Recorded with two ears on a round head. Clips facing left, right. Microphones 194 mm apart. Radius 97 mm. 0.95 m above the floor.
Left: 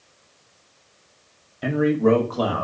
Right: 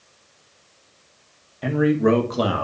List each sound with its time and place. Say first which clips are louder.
1.6 s a man speaking: even; 10° left (ahead or behind), 1.2 m; by 2.6 s 35° right (ahead or behind), 2 m